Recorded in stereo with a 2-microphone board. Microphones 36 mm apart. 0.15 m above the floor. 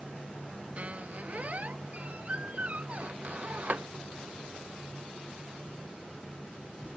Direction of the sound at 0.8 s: 40° right (ahead or behind).